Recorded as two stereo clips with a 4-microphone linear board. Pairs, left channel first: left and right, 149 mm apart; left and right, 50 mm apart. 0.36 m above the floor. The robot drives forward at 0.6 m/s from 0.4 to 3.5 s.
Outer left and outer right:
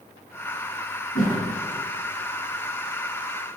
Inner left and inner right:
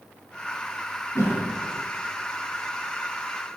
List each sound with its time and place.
1.1 s a whoosh: 65° left (ahead or behind), 7 m; by 1.4 s 60° left (ahead or behind), 7 m